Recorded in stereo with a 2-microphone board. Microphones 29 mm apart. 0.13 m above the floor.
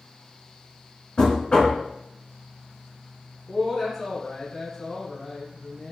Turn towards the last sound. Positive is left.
turn(degrees=0)  # may be behind; listen again after turning